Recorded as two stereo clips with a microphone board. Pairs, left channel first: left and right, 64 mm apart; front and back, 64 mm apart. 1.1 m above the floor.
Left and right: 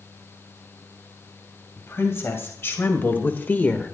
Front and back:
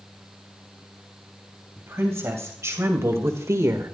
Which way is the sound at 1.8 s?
135° left.